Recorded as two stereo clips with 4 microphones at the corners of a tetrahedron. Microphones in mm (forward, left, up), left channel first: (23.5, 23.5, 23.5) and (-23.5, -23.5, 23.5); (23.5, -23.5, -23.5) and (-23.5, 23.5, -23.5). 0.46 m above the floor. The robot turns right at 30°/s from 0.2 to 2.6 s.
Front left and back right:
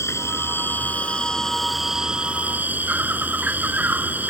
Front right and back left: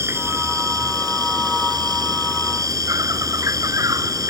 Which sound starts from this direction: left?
An insect, at 0.0 s.